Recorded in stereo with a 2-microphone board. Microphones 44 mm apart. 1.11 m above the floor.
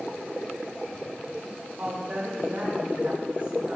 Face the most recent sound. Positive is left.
turn(degrees=-40)  # may be behind; listen again after turning